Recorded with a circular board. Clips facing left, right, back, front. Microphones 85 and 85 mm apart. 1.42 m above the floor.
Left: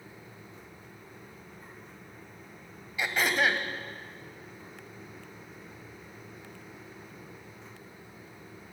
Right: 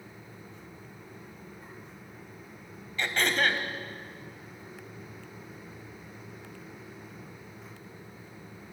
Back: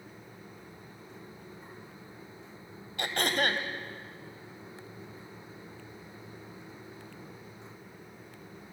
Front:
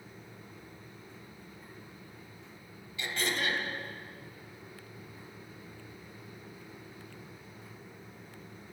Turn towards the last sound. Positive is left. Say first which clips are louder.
# even, back 4 dB
turn(degrees=170)